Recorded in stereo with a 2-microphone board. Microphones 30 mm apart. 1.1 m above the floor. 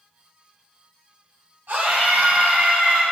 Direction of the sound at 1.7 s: 90° right.